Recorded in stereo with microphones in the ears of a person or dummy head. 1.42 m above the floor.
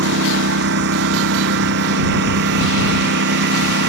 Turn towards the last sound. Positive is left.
turn(degrees=-55)  # may be behind; listen again after turning